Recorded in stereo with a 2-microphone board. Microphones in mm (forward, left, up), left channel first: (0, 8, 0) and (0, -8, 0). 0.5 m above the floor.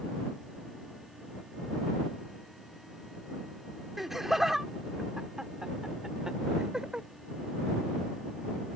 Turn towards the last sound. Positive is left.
turn(degrees=-55)  # may be behind; listen again after turning